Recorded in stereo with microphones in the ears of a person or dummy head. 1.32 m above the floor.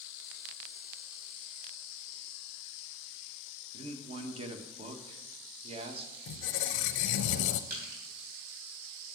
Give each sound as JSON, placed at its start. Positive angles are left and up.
{"t": 3.7, "sound": "a man speaking", "side_deg": -35, "distance_m": 1.3}
{"t": 6.3, "sound": "a squeak", "side_deg": 70, "distance_m": 0.6}
{"t": 7.7, "sound": "crushing", "side_deg": -60, "distance_m": 4.0}